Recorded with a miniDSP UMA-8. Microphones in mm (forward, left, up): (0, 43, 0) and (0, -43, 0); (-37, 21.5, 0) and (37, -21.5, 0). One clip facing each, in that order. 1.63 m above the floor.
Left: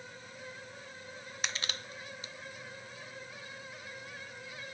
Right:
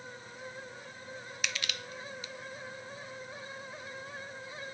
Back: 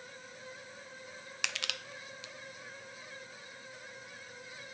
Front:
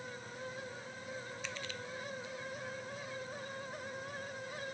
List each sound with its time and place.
1.4 s crushing: 145° left